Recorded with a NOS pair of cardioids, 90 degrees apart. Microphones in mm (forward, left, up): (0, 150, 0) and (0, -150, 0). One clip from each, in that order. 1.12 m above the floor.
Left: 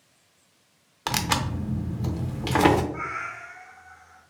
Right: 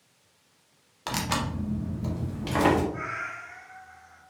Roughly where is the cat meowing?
Ahead.